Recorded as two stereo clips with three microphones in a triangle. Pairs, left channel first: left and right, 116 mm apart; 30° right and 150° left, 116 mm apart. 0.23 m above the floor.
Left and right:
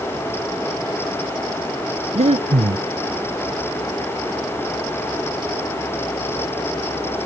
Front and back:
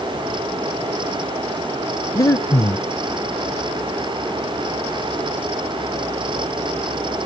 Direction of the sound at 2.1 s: 90° right.